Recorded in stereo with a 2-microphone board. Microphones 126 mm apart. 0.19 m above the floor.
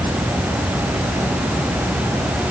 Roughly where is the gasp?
No gasp in this recording.